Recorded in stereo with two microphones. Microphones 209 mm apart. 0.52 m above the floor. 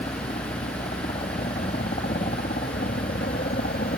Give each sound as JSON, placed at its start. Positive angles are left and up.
{"t": 0.0, "sound": "a helicopter", "side_deg": 35}